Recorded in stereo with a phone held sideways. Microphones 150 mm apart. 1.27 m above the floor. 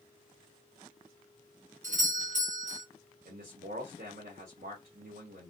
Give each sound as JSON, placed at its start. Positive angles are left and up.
{"t": 1.8, "sound": "a doorbell", "side_deg": -55, "distance_m": 1.8}
{"t": 3.2, "sound": "a man speaking", "side_deg": -65, "distance_m": 1.4}